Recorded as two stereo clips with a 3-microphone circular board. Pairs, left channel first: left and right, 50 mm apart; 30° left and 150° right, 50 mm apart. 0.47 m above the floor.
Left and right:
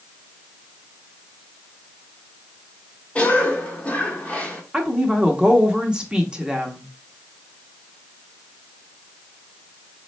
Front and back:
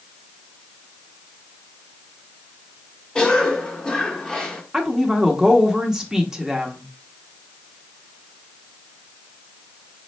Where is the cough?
80° left, 1.0 m.